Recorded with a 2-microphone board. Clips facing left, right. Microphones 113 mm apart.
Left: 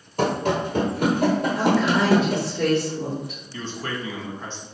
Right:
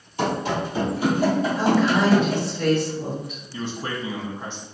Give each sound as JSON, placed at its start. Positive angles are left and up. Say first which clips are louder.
{"t": 0.2, "sound": "running footsteps", "louder": "left 2 dB", "side_deg": 45, "distance_m": 1.4}
{"t": 1.6, "sound": "a woman speaking", "louder": "right 1 dB", "side_deg": 75, "distance_m": 1.9}
{"t": 3.5, "sound": "a man speaking", "louder": "right 2 dB", "side_deg": -15, "distance_m": 1.1}